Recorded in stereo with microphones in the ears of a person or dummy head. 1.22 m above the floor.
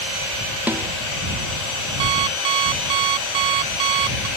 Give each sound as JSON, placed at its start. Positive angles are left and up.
{"t": 0.7, "sound": "a snare drum", "side_deg": -10}
{"t": 2.0, "sound": "an alarm clock", "side_deg": -20}